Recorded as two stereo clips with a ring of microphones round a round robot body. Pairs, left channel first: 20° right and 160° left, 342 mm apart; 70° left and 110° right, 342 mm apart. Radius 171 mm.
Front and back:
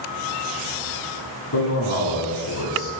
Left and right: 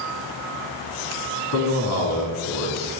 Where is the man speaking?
25° left, 2.5 m.